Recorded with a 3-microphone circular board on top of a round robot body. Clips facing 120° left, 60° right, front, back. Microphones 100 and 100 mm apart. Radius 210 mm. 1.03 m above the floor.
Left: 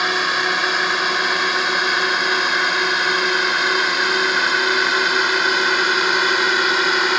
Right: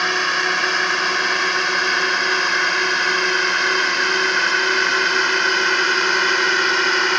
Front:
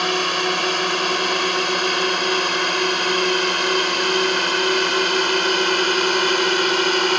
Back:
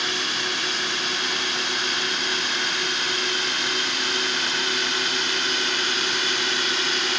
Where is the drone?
35° left.